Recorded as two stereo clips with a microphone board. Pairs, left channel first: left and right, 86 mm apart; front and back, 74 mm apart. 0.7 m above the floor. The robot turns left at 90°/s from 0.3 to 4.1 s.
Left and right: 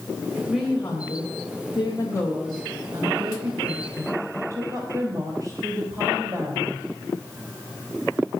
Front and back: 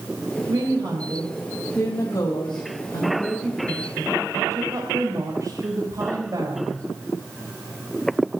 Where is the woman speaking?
170° right, 3 m; by 6.8 s 135° right, 3 m.